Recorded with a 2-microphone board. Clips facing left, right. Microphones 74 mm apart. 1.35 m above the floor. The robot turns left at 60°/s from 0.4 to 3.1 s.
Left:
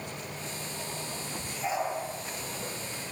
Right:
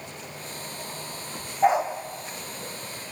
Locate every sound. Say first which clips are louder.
1.6 s a dog barking: right 10 dB; 75° right (ahead or behind), 4 m; by 1.9 s 65° right (ahead or behind), 4 m